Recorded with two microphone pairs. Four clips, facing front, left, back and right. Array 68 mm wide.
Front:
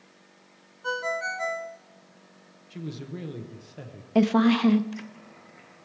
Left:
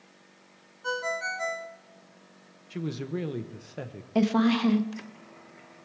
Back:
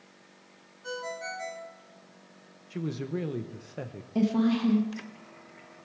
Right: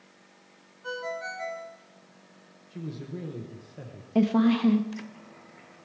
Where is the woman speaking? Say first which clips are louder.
Right 1 dB, front 5 dB; 20° left, 0.8 m.